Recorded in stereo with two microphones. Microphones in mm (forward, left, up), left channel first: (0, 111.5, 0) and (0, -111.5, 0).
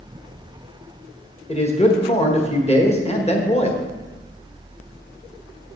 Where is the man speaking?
25° left (ahead or behind), 1.4 m.